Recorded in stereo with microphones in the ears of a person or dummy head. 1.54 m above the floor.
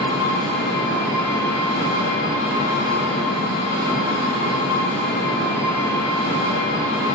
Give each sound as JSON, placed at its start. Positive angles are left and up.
{"t": 0.0, "sound": "an engine running", "side_deg": -20, "distance_m": 1.9}